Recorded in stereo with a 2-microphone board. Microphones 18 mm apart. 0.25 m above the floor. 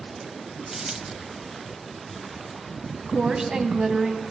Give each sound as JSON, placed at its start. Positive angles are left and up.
{"t": 0.7, "sound": "a dropped coin", "side_deg": -30, "distance_m": 0.7}
{"t": 3.1, "sound": "a woman speaking", "side_deg": -45, "distance_m": 1.6}